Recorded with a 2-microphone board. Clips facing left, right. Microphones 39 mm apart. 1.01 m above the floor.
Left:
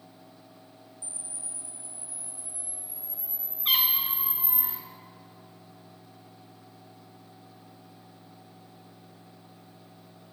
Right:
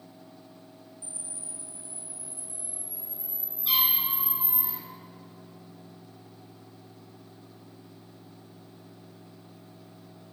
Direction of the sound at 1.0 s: 50° right (ahead or behind).